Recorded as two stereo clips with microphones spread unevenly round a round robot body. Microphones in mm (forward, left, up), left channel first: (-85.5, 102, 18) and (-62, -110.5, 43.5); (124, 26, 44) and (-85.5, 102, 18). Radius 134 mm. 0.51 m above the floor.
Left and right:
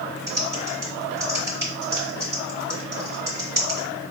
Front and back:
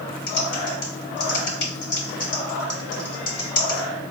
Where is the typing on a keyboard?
5° right, 2 m.